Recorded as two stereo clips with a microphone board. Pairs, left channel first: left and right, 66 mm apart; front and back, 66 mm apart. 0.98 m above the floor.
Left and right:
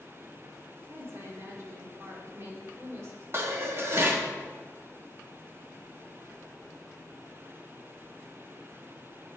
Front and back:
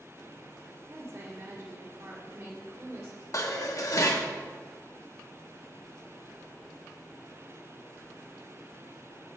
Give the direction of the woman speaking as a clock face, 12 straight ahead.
4 o'clock.